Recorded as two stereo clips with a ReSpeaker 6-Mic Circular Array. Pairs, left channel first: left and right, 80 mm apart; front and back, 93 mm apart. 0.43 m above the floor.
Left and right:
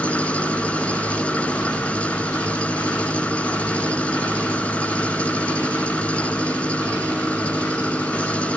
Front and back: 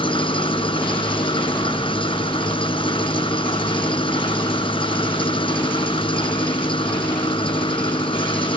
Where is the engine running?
15° left, 1.5 m.